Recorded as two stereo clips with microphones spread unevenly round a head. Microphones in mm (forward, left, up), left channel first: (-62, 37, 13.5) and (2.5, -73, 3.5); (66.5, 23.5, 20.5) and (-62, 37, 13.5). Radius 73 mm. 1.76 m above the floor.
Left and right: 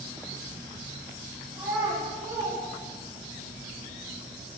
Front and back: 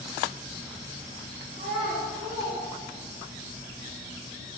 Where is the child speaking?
125° right, 2 m; by 3.4 s 80° right, 3.5 m.